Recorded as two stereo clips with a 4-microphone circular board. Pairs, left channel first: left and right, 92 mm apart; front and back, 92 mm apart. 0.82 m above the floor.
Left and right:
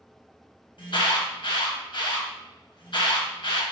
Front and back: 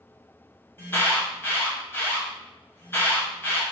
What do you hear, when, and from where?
0.8 s an alarm: 65° left, 1.4 m